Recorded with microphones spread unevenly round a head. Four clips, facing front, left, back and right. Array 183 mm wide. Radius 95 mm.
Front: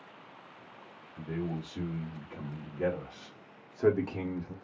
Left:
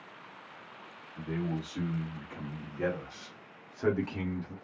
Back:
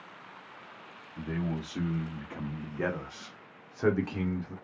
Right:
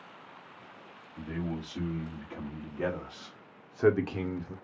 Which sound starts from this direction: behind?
A man speaking, at 1.2 s.